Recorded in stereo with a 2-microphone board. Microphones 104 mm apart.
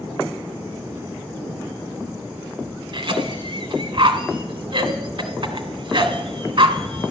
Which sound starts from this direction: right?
A cough, at 2.9 s.